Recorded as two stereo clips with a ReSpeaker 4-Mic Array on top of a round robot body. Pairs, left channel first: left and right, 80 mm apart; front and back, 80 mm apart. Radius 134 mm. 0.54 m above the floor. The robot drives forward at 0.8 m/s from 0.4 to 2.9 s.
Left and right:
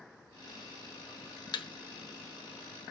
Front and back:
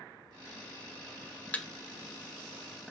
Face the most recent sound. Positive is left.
turn(degrees=120)